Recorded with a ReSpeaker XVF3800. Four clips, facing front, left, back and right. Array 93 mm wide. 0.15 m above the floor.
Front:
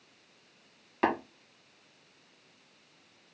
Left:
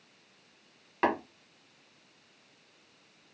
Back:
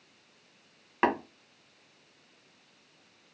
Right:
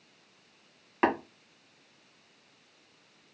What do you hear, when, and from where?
1.0 s tapping: 150° right, 1.7 m